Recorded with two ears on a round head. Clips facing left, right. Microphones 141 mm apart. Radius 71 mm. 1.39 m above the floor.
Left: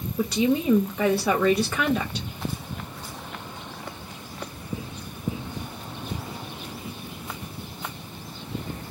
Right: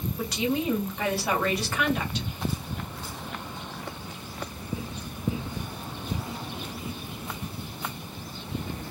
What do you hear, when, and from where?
0.2 s a woman speaking: 80° left, 1.8 m